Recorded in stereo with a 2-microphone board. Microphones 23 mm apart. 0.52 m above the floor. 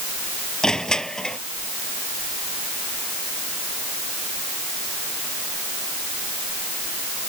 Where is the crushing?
35° left (ahead or behind).